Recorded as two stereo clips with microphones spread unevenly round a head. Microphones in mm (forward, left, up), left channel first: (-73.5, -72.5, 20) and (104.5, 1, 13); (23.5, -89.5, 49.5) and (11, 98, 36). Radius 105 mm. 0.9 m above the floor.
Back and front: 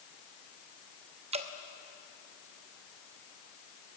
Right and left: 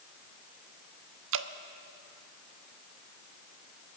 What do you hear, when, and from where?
1.3 s dripping: 85° left, 0.8 m